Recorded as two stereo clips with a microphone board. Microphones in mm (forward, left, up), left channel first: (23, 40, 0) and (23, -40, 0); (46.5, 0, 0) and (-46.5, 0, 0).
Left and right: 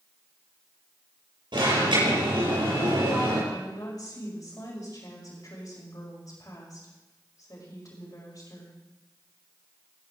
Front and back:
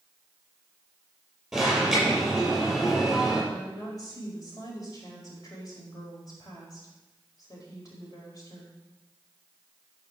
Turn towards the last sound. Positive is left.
turn(degrees=50)